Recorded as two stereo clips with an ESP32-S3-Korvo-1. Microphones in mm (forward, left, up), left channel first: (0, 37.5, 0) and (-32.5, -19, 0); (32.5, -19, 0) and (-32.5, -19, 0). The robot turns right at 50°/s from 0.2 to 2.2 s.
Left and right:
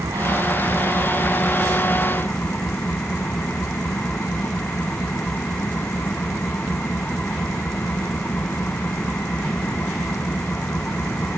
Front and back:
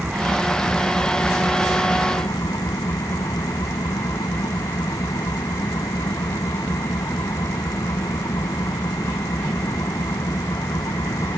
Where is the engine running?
105° right; by 11.4 s 5° right.